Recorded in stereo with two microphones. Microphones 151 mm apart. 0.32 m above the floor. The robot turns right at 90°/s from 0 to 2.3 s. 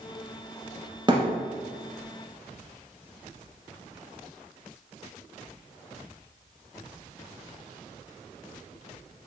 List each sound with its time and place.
1.1 s a thud: 30° right (ahead or behind), 1.1 m; by 1.3 s 50° right (ahead or behind), 1.1 m